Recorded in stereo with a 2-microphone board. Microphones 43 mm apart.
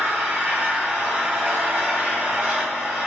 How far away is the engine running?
About 2 m.